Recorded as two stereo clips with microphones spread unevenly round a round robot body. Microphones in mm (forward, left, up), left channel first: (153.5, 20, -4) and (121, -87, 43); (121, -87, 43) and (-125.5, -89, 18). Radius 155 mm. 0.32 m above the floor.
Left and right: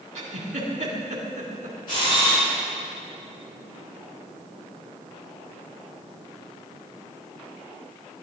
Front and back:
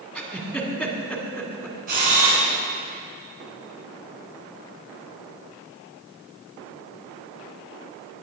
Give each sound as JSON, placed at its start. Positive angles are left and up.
{"t": 0.1, "sound": "a giggle", "azimuth_deg": -85, "distance_m": 2.0}
{"t": 1.9, "sound": "a camera shutter", "azimuth_deg": 120, "distance_m": 2.5}